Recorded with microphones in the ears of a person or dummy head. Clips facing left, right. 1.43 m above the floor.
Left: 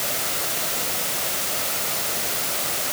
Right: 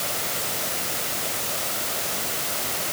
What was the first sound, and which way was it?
Only background noise.